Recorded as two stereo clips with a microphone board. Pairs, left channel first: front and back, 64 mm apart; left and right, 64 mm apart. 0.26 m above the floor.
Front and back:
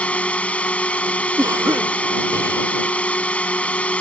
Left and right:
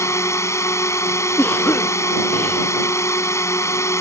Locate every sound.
0.0 s a drone: 65° left
1.4 s a cough: 155° left